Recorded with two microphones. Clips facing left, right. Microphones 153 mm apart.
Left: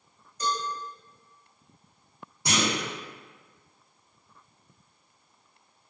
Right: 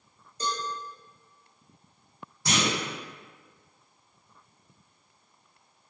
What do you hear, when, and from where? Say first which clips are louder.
0.4 s a cowbell: left 2 dB; 30° right (ahead or behind), 0.6 m
2.5 s a clunk: even; 20° left (ahead or behind), 1.4 m